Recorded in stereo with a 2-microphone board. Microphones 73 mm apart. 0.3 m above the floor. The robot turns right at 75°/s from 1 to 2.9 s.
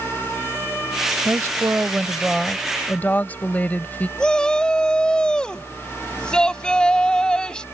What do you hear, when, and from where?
1.2 s a woman speaking: 90° right; by 4.1 s 35° left
4.2 s a shout: 10° left (ahead or behind)